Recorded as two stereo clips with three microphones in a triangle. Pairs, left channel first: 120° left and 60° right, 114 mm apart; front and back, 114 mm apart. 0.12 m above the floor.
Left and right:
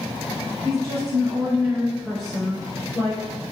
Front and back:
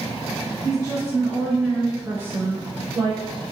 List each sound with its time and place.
0.6 s a woman speaking: 50° right, 1.9 m; by 3.2 s 160° left, 1.7 m